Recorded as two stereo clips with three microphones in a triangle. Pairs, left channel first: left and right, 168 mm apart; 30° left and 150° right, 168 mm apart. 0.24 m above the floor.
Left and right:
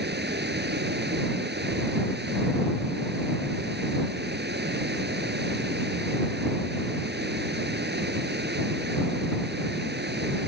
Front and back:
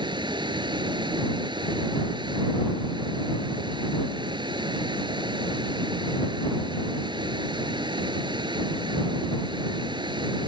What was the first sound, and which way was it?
Running water, 90° right.